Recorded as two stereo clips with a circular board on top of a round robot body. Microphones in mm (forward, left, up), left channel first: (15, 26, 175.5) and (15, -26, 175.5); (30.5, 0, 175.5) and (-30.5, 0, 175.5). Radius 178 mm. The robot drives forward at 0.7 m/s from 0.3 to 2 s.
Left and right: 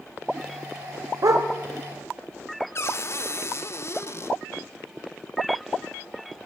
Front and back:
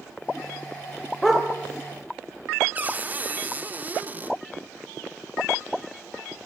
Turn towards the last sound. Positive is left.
turn(degrees=120)